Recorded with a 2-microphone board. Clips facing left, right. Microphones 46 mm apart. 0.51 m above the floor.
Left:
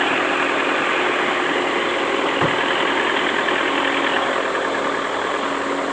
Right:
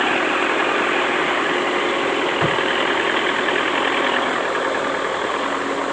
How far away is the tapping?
About 1.8 m.